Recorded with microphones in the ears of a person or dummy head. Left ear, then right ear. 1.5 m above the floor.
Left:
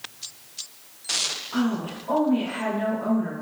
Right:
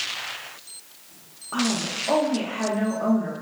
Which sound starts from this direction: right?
A woman speaking, at 1.5 s.